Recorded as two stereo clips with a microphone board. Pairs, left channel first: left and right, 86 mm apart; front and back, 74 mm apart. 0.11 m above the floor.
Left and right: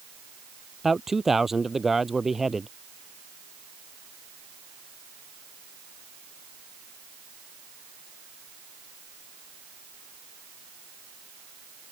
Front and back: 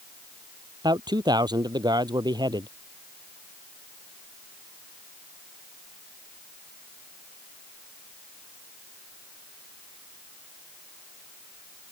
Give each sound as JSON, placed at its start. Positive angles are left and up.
{"t": 0.8, "sound": "a man speaking", "azimuth_deg": -175}